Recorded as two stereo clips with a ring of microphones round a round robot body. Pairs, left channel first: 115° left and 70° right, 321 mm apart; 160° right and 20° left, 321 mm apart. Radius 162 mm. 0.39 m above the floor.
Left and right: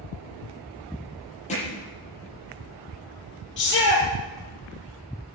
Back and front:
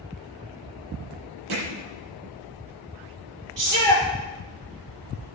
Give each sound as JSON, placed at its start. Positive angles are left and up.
{"t": 1.5, "sound": "hammering", "azimuth_deg": 40, "distance_m": 8.5}
{"t": 3.6, "sound": "a shout", "azimuth_deg": 55, "distance_m": 8.0}